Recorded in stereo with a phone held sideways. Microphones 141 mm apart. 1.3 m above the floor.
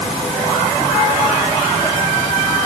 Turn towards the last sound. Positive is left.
No sound to turn to.